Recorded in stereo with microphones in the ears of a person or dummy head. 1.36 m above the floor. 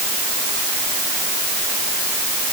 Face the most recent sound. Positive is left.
No sound to turn to.